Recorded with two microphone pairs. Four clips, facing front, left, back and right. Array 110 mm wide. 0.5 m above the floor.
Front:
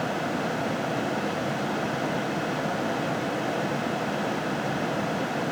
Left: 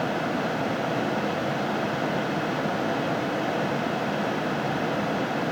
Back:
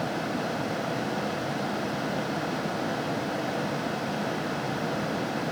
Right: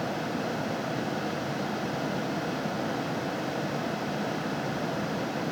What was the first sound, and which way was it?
Only background noise.